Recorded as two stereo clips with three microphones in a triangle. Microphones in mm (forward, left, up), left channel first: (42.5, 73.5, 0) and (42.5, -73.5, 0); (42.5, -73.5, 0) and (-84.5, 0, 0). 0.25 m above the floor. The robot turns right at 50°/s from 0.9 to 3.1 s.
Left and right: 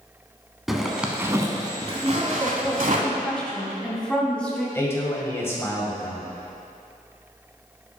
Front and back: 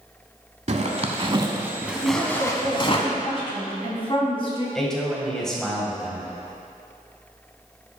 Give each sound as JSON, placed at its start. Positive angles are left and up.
{"t": 0.7, "sound": "a zipper", "azimuth_deg": 180, "distance_m": 0.9}
{"t": 2.0, "sound": "a woman speaking", "azimuth_deg": -45, "distance_m": 1.7}
{"t": 4.8, "sound": "a man speaking", "azimuth_deg": 50, "distance_m": 1.4}